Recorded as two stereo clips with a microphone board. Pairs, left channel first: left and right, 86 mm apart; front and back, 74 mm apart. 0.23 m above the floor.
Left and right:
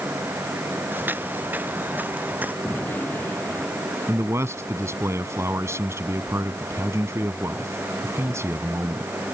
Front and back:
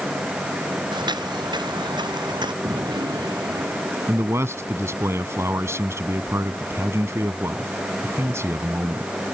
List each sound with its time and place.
0.9 s footsteps: 160° right
2.6 s a gunshot: 160° left
4.1 s a man speaking: 140° right